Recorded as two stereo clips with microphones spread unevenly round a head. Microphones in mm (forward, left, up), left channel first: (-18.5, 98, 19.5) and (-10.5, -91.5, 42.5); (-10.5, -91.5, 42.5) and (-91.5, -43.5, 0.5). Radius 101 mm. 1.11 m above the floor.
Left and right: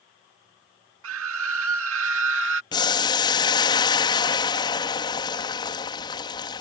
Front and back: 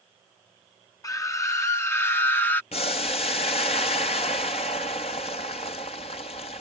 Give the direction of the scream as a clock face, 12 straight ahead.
3 o'clock.